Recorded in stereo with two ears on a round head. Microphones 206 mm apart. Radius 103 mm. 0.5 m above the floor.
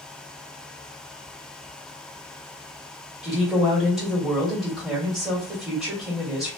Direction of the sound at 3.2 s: Centre (ahead or behind).